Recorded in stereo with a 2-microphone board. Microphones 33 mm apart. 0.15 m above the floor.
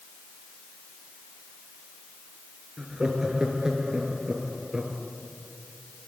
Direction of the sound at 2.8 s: 25° right (ahead or behind).